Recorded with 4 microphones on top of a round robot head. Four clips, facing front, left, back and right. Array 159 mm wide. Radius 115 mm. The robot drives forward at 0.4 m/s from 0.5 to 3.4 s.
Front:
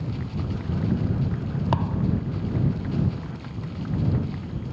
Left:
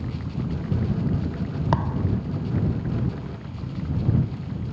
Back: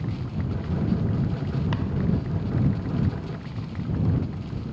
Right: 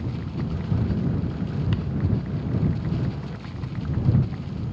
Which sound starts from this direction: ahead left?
A thud, at 1.7 s.